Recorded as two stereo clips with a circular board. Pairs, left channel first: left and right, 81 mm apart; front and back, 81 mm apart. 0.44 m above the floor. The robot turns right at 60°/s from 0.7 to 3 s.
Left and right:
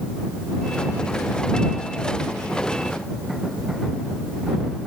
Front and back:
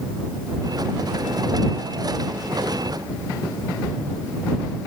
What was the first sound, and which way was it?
Only background noise.